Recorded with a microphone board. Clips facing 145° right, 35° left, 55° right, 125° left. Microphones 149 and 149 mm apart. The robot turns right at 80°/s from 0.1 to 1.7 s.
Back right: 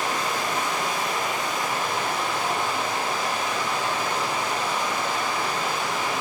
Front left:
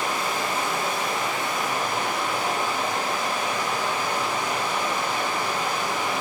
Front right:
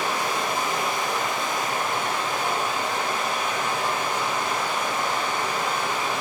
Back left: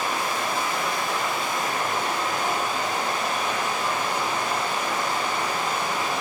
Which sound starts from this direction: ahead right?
Running water, at 0.0 s.